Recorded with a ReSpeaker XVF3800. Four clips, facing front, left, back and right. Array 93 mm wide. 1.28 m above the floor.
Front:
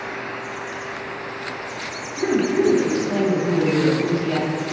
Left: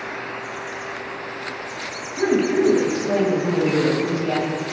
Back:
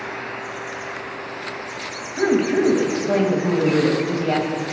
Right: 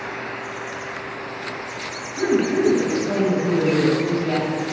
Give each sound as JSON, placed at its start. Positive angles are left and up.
{"t": 2.2, "sound": "a woman speaking", "azimuth_deg": 165, "distance_m": 1.4}